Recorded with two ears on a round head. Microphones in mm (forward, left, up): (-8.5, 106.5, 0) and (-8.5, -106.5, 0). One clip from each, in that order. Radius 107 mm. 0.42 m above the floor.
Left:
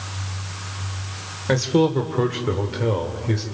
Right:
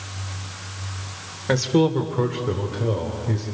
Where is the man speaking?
10° right (ahead or behind), 1.6 m; by 3.4 s 45° left (ahead or behind), 2 m.